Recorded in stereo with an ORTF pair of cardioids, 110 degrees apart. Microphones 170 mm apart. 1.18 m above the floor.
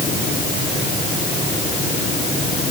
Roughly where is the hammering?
No hammering in this recording.